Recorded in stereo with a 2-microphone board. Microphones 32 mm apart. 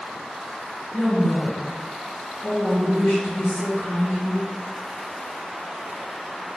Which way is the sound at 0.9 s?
65° left (ahead or behind).